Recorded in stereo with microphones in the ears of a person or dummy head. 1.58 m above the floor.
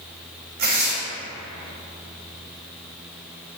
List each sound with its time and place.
0.6 s tearing paper: 40° right (ahead or behind), 0.8 m